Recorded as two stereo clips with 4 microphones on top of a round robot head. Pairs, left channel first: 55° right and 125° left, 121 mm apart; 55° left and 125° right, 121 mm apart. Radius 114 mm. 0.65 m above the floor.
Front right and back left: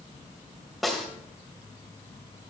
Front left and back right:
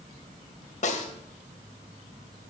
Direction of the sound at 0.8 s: 35° left.